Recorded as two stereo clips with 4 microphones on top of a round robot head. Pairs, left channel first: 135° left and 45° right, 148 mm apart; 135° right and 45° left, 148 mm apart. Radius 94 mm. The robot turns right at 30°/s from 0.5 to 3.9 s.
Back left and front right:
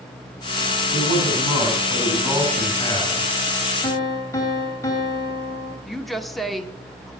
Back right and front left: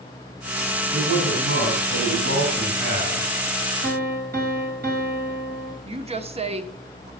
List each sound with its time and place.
0.9 s a man speaking: 5° left, 5 m; by 3.3 s 75° left, 5 m
3.8 s a piano: 60° left, 2.5 m; by 5.8 s 65° left, 2.5 m
5.8 s a woman speaking: 45° left, 1.1 m